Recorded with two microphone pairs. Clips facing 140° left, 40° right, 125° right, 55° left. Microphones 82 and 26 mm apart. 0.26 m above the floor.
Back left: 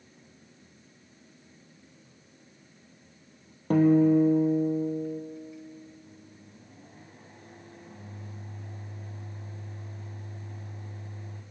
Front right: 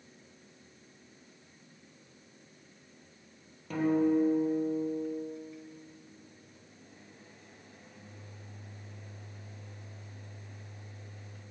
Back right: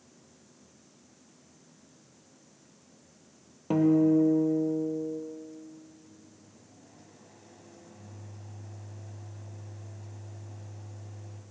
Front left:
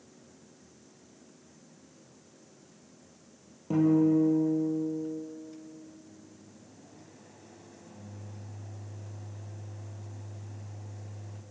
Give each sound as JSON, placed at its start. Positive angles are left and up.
{"t": 3.7, "sound": "a guitar", "azimuth_deg": 180, "distance_m": 2.0}
{"t": 6.0, "sound": "a microwave", "azimuth_deg": 145, "distance_m": 1.2}